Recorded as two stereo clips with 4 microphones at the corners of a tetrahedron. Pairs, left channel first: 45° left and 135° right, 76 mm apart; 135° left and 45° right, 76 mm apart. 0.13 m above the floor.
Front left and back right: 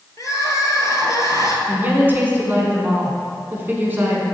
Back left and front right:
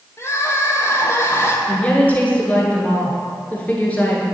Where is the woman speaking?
175° right, 1.2 m.